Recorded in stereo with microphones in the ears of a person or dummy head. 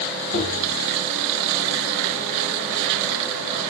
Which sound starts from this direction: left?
Tapping, at 0.3 s.